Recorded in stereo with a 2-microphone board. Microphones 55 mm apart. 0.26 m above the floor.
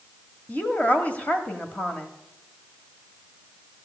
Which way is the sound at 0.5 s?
25° left (ahead or behind).